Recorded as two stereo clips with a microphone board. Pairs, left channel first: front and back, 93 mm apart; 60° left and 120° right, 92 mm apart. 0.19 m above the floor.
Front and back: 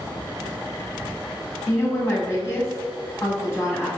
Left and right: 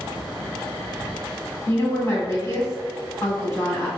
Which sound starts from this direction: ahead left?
A woman speaking, at 1.7 s.